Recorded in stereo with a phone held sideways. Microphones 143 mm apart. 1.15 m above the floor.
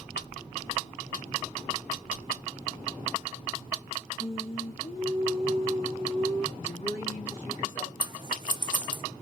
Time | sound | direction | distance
4.2 | singing | 40° left (ahead or behind) | 1.2 m
6.6 | a woman speaking | 60° left (ahead or behind) | 1.9 m
8.0 | scissors | 35° right (ahead or behind) | 0.6 m